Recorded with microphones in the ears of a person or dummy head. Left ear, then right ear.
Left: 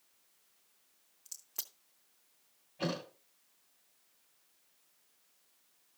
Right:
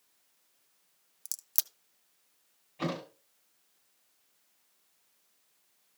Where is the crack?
70° right (ahead or behind), 0.5 m.